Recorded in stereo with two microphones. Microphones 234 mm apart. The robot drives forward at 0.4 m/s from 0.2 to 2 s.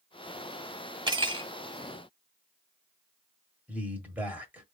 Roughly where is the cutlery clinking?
Centre.